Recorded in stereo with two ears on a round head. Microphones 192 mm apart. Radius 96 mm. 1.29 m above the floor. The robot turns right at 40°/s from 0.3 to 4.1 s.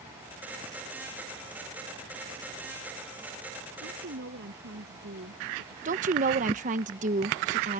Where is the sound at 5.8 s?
35° right (ahead or behind).